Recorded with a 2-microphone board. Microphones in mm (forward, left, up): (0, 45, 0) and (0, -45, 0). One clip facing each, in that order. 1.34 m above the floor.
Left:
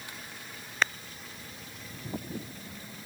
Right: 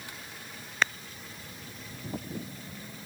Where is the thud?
I don't hear a thud.